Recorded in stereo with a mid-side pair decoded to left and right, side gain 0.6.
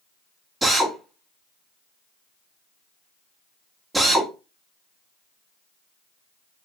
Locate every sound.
0.6 s a drill: 15° right, 1.1 m